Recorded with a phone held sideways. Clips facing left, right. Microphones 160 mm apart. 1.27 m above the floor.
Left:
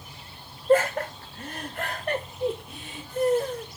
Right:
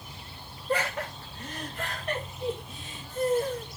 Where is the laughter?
45° left (ahead or behind), 2.5 m; by 3.7 s 65° left (ahead or behind), 5 m.